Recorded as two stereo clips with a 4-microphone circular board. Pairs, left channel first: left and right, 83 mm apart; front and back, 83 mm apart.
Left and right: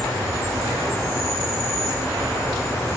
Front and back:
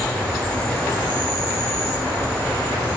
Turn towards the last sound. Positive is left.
turn(degrees=60)